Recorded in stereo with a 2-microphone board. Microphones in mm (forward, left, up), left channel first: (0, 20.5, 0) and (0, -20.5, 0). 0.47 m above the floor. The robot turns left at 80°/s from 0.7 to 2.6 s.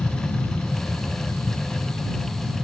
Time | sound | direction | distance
0.0 | an aircraft | 45° left (ahead or behind) | ?